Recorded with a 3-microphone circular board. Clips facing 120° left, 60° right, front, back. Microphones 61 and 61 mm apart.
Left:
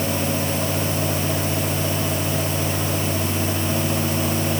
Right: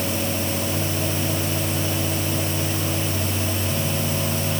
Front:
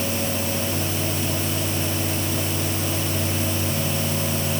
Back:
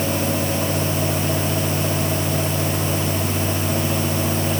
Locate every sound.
Only background noise.